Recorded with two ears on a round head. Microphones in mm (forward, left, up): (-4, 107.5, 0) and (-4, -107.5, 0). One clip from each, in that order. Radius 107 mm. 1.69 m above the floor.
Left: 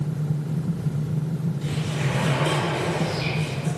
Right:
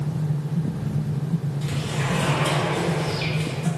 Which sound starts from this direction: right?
A sliding door, at 1.6 s.